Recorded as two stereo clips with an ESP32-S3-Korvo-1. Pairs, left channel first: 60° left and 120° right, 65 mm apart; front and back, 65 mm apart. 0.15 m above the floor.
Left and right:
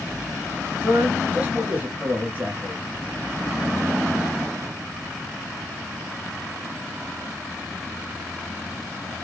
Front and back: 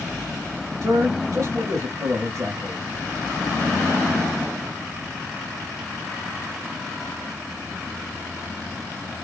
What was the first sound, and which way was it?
A man speaking, straight behind.